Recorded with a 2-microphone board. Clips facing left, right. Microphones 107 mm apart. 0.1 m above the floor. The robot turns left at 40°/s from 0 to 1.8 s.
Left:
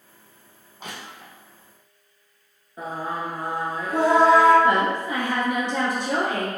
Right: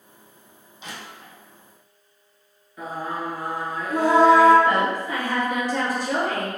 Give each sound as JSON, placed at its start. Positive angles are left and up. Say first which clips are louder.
{"t": 0.8, "sound": "crushing", "louder": "left 1 dB", "side_deg": 50, "distance_m": 1.4}
{"t": 2.8, "sound": "singing", "louder": "even", "side_deg": 30, "distance_m": 1.8}
{"t": 4.6, "sound": "a woman speaking", "louder": "left 1 dB", "side_deg": 25, "distance_m": 1.7}